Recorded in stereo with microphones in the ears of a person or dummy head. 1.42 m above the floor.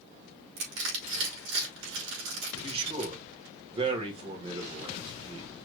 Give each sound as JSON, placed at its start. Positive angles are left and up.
{"t": 0.6, "sound": "crushing", "side_deg": -60, "distance_m": 4.0}
{"t": 2.5, "sound": "a man speaking", "side_deg": -30, "distance_m": 1.9}